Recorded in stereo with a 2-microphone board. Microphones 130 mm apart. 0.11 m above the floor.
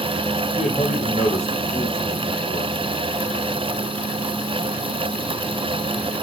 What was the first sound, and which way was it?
A man speaking, 60° left (ahead or behind).